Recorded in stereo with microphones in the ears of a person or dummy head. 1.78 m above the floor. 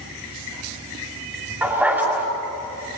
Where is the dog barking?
10° right (ahead or behind), 5.5 m.